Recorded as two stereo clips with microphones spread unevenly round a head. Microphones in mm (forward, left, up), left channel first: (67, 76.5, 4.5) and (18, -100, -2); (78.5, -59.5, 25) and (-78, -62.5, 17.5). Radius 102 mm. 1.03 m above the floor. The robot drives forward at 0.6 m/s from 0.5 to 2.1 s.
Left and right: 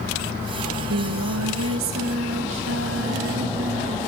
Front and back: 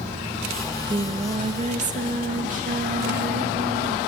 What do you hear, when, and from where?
0.7 s singing: 105° right, 1.0 m; by 4.0 s 140° right, 1.5 m